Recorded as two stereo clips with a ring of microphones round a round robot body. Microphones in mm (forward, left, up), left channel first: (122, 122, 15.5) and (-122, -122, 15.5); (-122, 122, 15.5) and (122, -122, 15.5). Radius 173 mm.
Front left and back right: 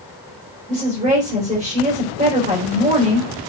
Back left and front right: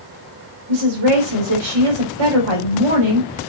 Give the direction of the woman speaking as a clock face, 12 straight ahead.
2 o'clock.